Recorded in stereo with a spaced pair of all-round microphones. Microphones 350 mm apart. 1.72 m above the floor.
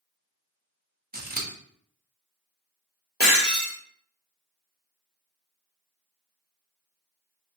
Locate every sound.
1.1 s scissors: 25° right (ahead or behind), 0.9 m
3.2 s breaking glass: 25° left (ahead or behind), 2 m